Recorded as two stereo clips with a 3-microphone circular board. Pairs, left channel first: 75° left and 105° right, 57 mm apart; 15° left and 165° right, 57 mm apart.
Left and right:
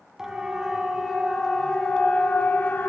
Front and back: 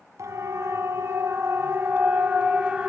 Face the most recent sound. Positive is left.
turn(degrees=125)